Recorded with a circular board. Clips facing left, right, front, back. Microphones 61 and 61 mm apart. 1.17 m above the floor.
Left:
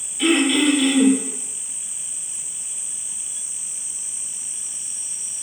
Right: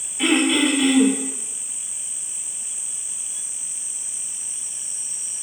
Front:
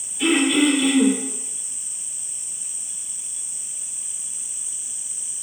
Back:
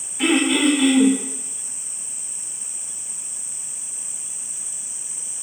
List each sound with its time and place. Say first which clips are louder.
0.2 s throat clearing: left 1 dB, even; 145° right, 1.1 m